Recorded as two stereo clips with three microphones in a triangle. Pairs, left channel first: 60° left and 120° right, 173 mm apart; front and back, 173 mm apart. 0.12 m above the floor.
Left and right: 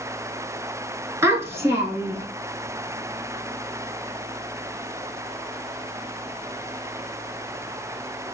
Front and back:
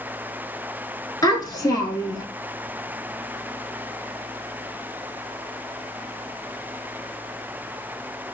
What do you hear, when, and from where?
1.2 s a child speaking: 55° right, 0.9 m